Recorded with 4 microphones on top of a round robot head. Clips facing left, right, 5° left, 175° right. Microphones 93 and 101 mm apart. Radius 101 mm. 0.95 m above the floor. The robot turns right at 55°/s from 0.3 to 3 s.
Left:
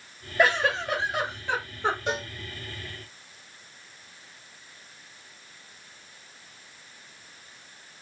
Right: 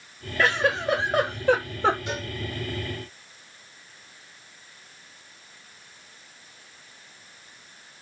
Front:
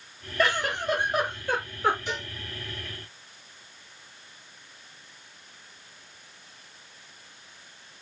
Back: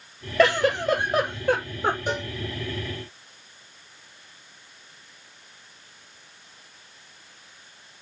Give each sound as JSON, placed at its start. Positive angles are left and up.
{"t": 0.4, "sound": "a giggle", "azimuth_deg": 170, "distance_m": 0.7}
{"t": 2.1, "sound": "a cowbell", "azimuth_deg": 145, "distance_m": 1.5}